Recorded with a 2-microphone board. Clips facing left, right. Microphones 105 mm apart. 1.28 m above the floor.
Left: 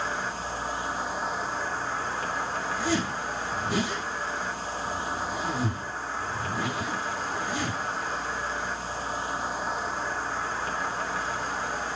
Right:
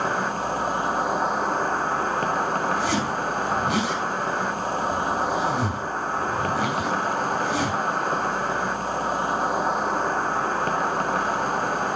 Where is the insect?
60° right (ahead or behind), 0.9 m.